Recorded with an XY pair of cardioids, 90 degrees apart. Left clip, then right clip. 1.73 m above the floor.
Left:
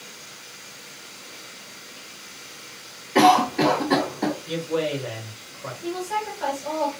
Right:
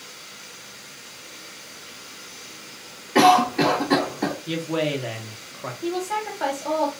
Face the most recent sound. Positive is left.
turn(degrees=-60)